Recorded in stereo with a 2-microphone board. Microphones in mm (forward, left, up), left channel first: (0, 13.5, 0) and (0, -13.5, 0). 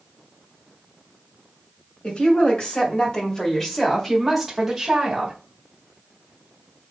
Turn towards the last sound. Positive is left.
turn(degrees=-15)  # may be behind; listen again after turning